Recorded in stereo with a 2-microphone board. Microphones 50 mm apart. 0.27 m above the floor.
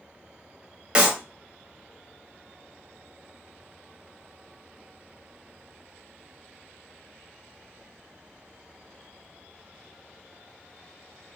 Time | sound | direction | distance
0.9 | a clap | 20° right (ahead or behind) | 1.1 m